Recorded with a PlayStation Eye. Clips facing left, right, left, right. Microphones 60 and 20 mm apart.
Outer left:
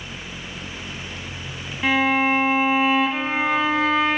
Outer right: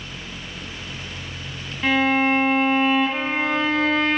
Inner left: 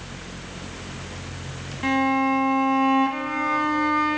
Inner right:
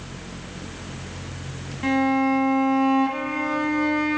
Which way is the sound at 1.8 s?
5° left (ahead or behind).